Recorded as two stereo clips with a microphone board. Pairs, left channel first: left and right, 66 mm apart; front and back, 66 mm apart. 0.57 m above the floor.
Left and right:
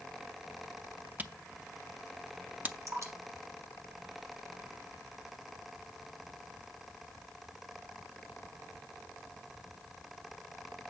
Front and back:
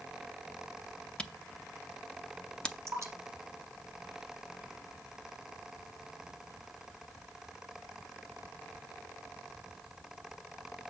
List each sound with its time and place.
1.2 s a camera shutter: 60° right, 0.6 m
2.9 s dripping: 130° right, 4 m